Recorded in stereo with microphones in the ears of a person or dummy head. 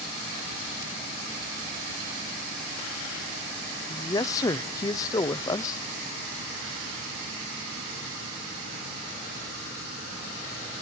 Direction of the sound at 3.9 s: 20° left (ahead or behind).